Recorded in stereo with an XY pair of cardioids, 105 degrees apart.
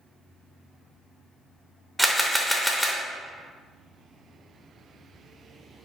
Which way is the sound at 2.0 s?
Straight ahead.